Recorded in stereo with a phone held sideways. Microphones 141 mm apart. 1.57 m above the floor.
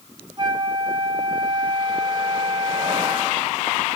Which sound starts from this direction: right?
A flute, at 0.4 s.